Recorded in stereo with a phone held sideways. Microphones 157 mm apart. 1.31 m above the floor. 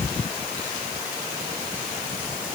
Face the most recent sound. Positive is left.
No sound to turn to.